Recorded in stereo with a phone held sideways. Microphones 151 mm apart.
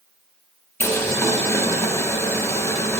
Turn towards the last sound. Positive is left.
turn(degrees=15)  # may be behind; listen again after turning